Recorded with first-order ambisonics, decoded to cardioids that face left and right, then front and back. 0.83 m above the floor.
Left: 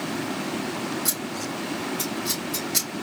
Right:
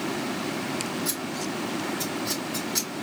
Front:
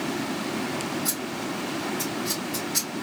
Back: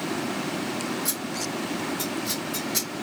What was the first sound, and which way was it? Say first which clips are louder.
Scissors: left 1 dB, even; 95° left.